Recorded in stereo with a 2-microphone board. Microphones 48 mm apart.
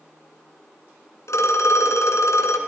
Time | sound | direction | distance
1.3 | a phone ringing | 85° left | 2.5 m